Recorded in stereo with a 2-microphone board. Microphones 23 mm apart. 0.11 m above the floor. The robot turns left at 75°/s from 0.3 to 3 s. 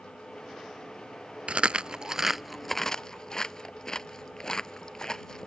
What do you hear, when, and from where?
1.5 s chewing: 55° right (ahead or behind); by 5.5 s 30° left (ahead or behind)